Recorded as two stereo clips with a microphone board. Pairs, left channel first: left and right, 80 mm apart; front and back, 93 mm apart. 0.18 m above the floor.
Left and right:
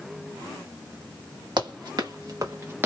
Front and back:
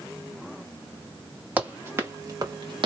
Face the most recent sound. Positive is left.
turn(degrees=-150)